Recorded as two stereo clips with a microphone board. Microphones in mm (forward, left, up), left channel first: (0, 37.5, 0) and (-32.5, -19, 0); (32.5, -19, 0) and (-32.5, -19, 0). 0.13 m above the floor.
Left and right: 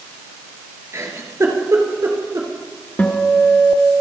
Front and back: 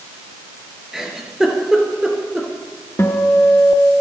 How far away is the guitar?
About 1.7 m.